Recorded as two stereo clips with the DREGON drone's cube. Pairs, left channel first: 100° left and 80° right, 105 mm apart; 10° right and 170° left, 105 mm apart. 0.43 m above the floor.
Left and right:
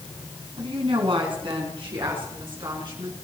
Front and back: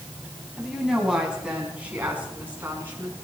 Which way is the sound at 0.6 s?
105° right.